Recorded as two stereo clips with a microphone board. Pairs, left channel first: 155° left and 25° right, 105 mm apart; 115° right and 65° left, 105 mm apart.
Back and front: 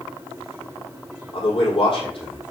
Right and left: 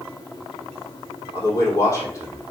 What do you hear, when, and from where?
1.3 s a man speaking: 175° right, 4 m